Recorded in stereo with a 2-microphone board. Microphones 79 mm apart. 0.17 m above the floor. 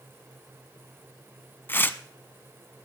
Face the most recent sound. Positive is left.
turn(degrees=25)  # may be behind; listen again after turning